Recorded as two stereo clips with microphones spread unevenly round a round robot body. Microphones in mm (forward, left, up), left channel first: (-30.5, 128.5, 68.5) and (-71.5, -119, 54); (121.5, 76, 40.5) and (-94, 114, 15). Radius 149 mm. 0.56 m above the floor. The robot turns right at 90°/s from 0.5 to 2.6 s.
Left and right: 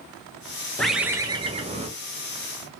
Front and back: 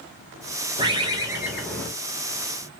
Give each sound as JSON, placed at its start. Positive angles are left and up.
{"t": 0.8, "sound": "a bird", "azimuth_deg": 170, "distance_m": 0.8}